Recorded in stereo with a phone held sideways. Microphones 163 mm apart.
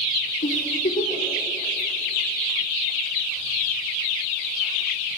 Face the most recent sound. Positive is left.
turn(degrees=85)